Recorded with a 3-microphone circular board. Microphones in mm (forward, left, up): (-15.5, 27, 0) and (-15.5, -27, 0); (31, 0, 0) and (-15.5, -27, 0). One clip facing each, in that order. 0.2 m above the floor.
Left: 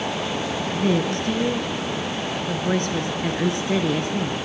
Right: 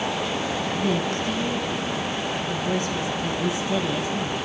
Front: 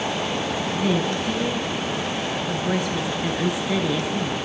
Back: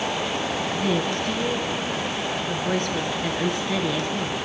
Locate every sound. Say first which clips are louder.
0.7 s a woman speaking: left 5 dB, front 2 dB; 115° left, 3 m